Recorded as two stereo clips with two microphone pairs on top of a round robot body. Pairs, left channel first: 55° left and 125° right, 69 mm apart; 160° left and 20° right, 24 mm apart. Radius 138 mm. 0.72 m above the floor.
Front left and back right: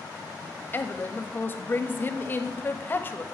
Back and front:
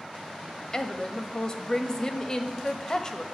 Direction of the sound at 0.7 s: 110° left.